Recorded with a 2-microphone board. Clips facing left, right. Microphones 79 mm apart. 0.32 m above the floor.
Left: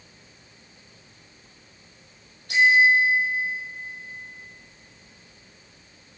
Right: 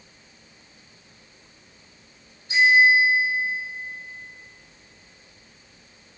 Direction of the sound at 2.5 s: 65° left (ahead or behind).